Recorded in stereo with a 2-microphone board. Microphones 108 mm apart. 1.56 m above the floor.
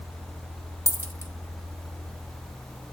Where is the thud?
No thud in this recording.